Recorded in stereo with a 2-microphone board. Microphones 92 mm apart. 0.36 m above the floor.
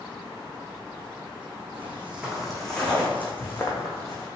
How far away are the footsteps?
About 1.1 m.